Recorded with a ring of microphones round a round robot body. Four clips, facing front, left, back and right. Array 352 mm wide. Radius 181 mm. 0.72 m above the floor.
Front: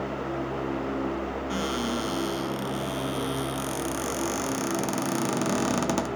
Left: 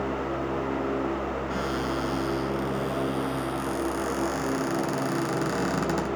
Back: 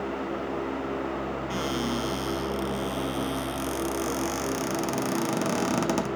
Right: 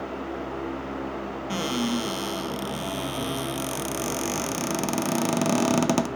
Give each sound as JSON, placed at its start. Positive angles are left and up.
{"t": 1.5, "sound": "a cupboard door", "azimuth_deg": -90, "distance_m": 0.7}